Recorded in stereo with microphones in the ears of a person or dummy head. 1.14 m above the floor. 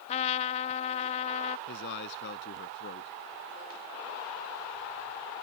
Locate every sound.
0.1 s a trumpet: 35° left (ahead or behind)
1.7 s a man speaking: 60° left (ahead or behind)